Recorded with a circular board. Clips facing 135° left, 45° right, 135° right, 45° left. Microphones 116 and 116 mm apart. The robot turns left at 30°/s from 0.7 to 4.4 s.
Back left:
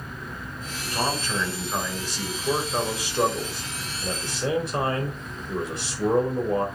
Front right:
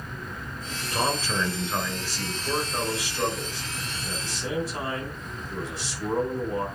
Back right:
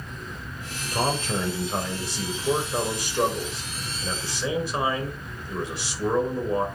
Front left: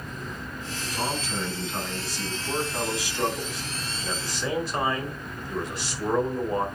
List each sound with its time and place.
0.9 s a man speaking: 115° right, 4 m; by 6.7 s 140° left, 4 m